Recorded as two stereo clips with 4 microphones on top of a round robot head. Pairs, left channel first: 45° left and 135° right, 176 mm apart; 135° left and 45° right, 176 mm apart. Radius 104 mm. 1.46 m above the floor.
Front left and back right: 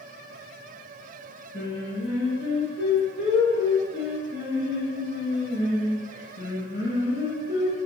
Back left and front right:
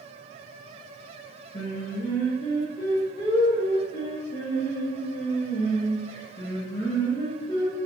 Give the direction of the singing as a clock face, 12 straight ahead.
10 o'clock.